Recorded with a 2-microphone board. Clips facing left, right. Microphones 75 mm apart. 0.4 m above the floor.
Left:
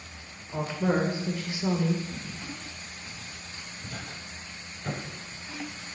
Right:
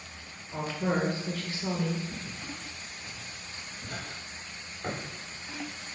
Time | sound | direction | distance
0.5 | a woman speaking | 15° left (ahead or behind) | 1.0 m
2.1 | footsteps | 25° right (ahead or behind) | 2.5 m